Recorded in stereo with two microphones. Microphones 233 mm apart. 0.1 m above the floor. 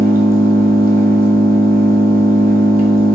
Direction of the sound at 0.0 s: 35° right (ahead or behind).